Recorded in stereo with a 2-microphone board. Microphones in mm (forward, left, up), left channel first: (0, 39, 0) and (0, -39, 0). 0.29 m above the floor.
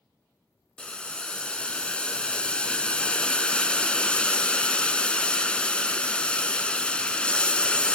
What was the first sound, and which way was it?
Boiling, 15° left (ahead or behind).